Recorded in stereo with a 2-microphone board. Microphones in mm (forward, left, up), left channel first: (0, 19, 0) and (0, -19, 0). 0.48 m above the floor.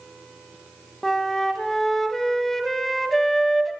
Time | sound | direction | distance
1.0 | a flute | 10° left (ahead or behind) | 1.1 m